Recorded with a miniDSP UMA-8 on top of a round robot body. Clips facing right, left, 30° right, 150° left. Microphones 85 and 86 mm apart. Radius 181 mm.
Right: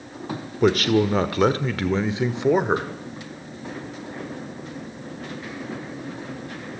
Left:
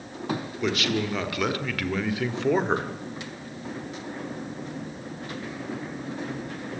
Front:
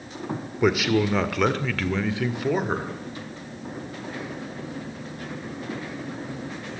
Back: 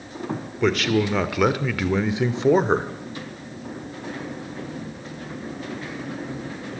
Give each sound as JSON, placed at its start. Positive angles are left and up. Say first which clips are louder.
{"t": 0.6, "sound": "a man speaking", "louder": "right 9 dB, even", "azimuth_deg": -105, "distance_m": 1.8}